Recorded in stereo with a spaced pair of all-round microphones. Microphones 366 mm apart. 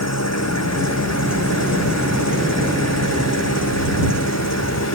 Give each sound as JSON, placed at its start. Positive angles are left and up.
{"t": 0.0, "sound": "an engine running", "side_deg": 45}